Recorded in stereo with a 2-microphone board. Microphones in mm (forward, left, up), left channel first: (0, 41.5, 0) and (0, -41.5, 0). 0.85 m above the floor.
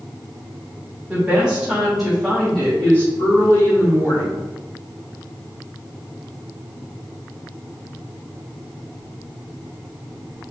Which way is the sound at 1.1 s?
20° right (ahead or behind).